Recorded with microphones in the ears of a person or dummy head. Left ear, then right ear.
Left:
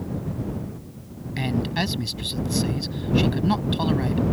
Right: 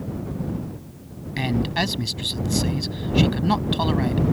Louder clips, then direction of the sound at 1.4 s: Right 2 dB; 15° right (ahead or behind).